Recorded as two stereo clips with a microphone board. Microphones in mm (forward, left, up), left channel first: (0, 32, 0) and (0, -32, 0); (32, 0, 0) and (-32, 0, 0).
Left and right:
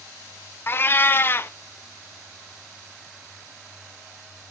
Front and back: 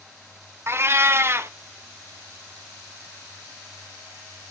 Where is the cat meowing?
135° left, 0.5 m.